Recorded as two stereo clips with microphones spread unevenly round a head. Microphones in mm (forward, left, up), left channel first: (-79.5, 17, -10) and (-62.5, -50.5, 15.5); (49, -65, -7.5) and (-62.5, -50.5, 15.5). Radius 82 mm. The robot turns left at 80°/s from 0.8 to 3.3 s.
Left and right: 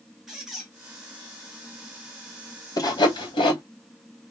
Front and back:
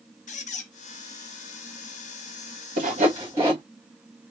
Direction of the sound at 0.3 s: 5° right.